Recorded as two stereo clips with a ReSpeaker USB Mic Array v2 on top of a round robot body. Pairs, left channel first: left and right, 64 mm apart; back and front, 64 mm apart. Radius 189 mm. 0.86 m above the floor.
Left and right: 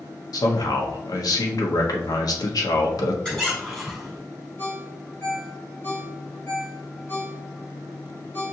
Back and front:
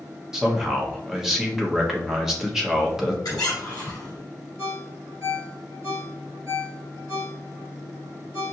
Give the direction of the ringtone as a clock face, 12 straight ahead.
11 o'clock.